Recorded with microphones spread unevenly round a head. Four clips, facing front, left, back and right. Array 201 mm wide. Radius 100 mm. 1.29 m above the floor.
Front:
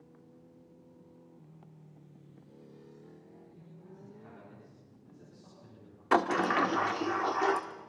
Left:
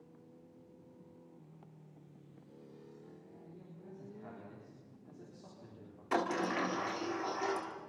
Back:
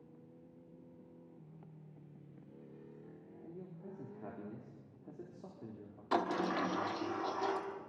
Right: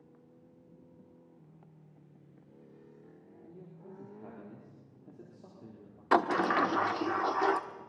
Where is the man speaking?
155° right, 4 m.